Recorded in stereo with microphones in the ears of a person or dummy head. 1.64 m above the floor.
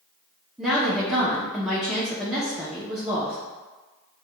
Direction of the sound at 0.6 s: Centre (ahead or behind).